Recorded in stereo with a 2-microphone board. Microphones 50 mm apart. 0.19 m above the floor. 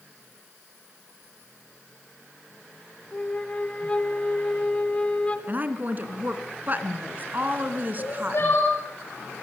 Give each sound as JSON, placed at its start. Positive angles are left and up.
{"t": 3.1, "sound": "a flute", "side_deg": 25, "distance_m": 2.0}
{"t": 5.5, "sound": "a woman speaking", "side_deg": -35, "distance_m": 3.0}
{"t": 8.0, "sound": "crying", "side_deg": 50, "distance_m": 8.5}